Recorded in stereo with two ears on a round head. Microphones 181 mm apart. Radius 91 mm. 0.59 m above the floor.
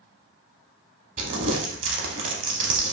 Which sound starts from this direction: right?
Crumpling, at 1.2 s.